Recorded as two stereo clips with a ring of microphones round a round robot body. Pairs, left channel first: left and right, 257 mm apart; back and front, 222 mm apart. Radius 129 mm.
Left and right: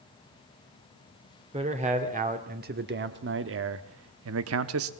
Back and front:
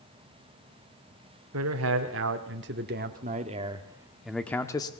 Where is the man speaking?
25° right, 1.7 m; by 4.9 s 110° right, 1.1 m.